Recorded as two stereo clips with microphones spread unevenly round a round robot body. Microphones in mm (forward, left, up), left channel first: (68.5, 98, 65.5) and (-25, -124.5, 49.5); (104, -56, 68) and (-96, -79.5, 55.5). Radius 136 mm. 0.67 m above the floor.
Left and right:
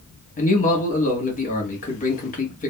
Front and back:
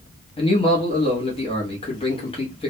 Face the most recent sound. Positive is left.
turn(degrees=45)